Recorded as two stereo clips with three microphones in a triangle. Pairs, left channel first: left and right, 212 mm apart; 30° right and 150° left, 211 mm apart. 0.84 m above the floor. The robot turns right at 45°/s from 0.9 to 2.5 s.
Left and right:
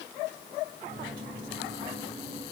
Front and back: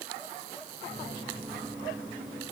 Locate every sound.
Only background noise.